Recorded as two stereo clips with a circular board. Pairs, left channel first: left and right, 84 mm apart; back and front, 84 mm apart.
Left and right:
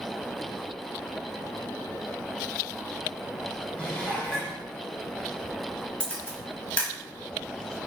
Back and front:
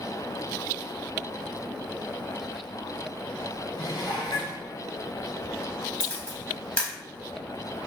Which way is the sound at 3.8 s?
165° left.